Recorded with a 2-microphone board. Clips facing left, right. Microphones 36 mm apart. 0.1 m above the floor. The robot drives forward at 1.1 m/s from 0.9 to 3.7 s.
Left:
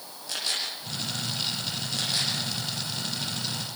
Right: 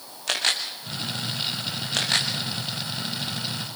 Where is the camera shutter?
85° right, 6.5 m; by 2.3 s 80° right, 6.5 m.